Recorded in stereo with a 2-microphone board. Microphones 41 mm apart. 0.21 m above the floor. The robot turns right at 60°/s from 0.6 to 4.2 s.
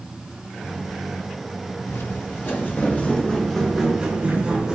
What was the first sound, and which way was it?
Footsteps, 80° left.